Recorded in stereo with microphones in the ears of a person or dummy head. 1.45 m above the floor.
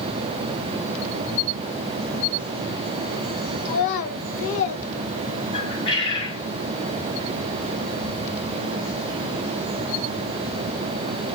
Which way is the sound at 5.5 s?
25° left (ahead or behind).